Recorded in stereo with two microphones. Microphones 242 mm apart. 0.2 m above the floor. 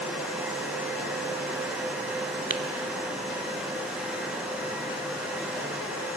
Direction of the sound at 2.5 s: 55° right (ahead or behind).